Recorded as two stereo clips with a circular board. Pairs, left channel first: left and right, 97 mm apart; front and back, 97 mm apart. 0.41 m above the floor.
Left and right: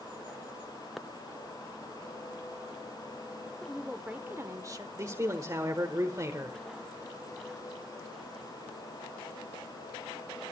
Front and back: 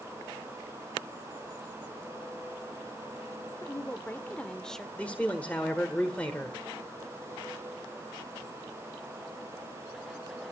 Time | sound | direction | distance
3.6 | a woman speaking | 10° left | 0.9 m
5.0 | a man speaking | 65° right | 1.4 m